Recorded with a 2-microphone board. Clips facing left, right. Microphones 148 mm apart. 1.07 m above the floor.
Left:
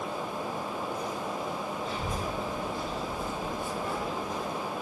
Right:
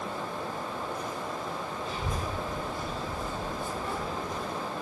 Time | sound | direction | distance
1.9 | a child speaking | 70° right (ahead or behind) | 1.4 m